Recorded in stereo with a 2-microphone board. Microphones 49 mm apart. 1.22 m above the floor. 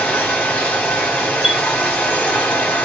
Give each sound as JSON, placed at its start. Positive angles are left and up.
{"t": 0.0, "sound": "running water", "side_deg": 35, "distance_m": 2.0}
{"t": 1.4, "sound": "a chime", "side_deg": -20, "distance_m": 0.5}